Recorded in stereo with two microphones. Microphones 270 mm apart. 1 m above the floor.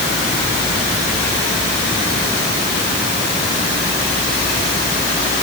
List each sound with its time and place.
Only background noise.